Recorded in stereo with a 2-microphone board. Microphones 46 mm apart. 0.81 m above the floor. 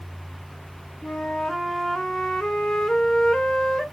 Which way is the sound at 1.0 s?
10° left (ahead or behind).